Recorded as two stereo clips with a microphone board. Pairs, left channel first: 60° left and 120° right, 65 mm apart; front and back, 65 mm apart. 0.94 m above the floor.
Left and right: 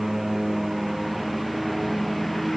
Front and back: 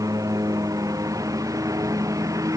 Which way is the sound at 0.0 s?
150° left.